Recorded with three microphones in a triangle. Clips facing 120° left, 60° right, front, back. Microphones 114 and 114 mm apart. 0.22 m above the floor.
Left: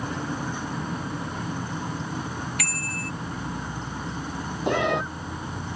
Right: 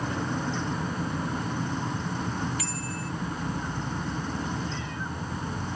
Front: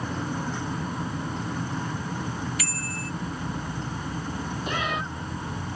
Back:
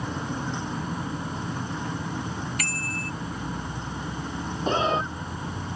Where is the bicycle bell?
140° left.